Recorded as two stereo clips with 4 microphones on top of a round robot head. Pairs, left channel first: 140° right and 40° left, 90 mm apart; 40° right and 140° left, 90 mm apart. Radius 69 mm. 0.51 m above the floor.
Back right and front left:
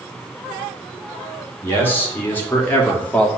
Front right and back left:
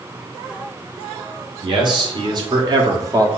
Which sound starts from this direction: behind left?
A man speaking, at 1.6 s.